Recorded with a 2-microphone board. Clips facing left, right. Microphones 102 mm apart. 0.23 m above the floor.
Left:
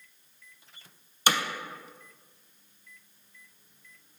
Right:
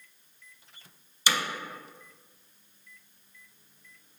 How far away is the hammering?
About 0.5 m.